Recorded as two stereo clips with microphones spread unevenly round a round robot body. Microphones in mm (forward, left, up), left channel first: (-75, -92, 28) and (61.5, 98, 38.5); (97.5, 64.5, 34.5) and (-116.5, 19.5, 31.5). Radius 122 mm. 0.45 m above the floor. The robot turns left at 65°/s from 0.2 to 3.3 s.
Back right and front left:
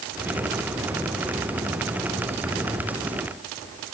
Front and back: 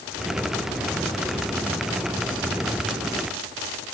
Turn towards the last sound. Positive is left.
No sound to turn to.